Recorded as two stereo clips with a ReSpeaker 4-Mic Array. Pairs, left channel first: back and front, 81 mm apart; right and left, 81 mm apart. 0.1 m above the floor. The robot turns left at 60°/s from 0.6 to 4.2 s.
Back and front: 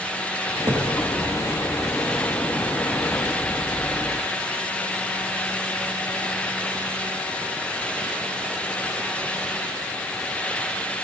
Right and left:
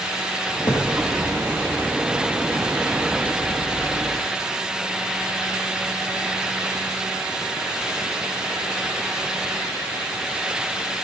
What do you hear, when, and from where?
0.6 s a thud: 40° right, 3.5 m; by 0.9 s 55° right, 3.5 m